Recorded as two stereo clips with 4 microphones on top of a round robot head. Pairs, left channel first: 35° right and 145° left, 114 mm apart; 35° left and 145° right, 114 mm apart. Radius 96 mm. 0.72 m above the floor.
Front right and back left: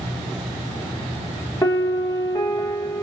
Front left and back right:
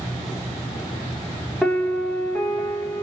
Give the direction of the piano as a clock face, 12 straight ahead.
2 o'clock.